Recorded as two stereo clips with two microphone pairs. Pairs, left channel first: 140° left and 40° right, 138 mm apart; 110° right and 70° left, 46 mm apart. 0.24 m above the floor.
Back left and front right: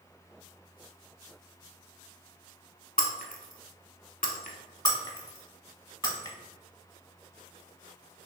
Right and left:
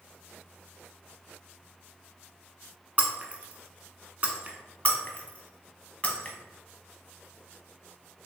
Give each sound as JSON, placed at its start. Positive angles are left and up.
{"t": 3.0, "sound": "breaking glass", "azimuth_deg": 125, "distance_m": 0.7}
{"t": 4.8, "sound": "breaking glass", "azimuth_deg": -170, "distance_m": 0.8}